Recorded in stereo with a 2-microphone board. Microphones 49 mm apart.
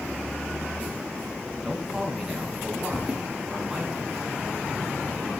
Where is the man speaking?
10° right (ahead or behind), 3 m.